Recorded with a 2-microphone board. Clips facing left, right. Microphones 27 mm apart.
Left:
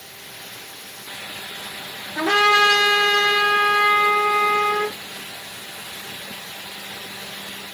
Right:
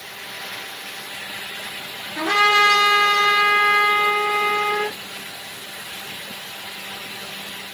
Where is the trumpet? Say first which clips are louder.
Even; 50° left (ahead or behind), 5 m.